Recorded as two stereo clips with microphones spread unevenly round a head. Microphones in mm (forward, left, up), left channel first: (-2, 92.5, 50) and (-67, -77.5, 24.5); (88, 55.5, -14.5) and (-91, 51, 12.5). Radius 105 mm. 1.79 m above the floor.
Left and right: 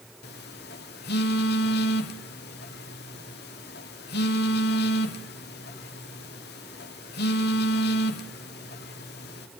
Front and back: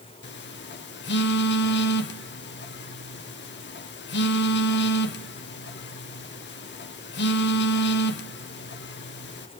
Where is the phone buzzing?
25° left, 1.5 m.